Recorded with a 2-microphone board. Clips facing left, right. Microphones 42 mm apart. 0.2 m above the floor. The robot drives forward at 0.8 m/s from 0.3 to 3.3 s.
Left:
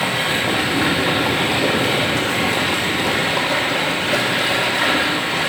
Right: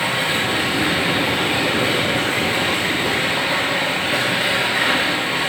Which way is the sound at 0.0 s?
65° left (ahead or behind).